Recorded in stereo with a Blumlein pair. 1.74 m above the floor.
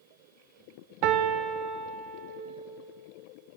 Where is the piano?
40° right, 1.0 m.